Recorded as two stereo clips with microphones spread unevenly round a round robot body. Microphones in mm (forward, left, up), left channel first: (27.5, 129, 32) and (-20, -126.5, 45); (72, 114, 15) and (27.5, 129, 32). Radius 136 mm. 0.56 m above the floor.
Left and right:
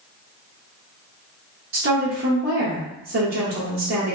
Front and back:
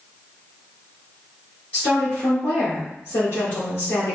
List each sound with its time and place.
1.7 s a woman speaking: 70° right, 1.4 m